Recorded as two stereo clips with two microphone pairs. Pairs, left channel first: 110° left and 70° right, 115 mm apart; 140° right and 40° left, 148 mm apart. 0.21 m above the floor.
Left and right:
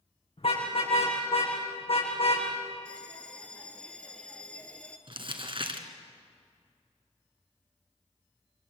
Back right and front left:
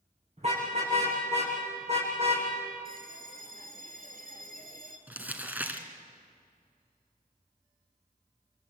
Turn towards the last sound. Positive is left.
turn(degrees=-40)